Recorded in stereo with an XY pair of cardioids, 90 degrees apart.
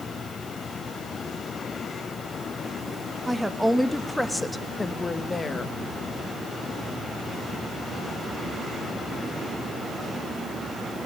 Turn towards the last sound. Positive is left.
turn(degrees=40)